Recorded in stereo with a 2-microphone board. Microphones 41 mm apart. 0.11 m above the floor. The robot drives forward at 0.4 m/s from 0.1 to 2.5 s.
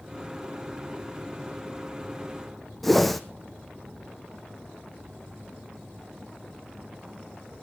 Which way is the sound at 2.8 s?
5° left (ahead or behind).